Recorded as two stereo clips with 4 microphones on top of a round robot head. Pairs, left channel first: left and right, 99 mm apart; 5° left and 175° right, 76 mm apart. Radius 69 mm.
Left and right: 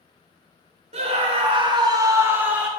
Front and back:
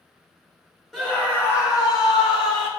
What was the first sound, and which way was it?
A scream, 80° right.